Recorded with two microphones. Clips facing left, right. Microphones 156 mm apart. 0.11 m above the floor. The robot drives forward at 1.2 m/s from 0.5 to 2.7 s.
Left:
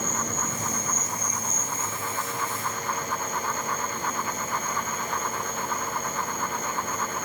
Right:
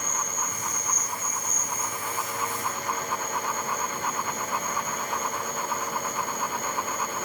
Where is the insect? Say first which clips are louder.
Left 3 dB; 75° left (ahead or behind), 0.8 m; by 7.2 s 15° left (ahead or behind), 3 m.